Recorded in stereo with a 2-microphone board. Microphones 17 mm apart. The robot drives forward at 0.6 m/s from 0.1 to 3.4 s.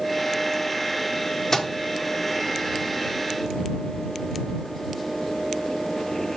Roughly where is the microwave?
Left.